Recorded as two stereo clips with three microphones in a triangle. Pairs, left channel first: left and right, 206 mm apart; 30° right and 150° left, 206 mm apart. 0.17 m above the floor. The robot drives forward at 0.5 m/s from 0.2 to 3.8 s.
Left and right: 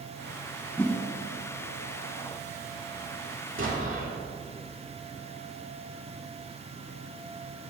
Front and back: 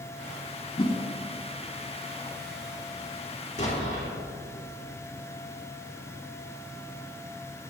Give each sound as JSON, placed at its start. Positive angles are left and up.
{"t": 0.8, "sound": "a whoosh", "azimuth_deg": 15, "distance_m": 1.0}
{"t": 3.6, "sound": "an explosion", "azimuth_deg": -85, "distance_m": 3.5}